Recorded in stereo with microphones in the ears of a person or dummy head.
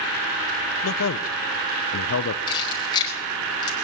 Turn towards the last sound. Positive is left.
turn(degrees=25)  # may be behind; listen again after turning